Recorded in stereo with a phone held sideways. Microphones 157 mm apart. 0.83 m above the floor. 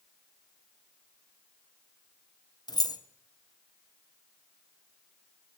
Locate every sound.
2.7 s keys jangling: 25° left (ahead or behind), 0.5 m